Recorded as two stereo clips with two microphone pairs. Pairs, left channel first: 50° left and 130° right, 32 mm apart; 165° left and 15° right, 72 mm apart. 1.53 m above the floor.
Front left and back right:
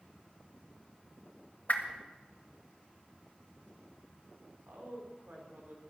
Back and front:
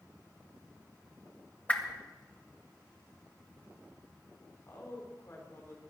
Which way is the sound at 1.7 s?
95° left.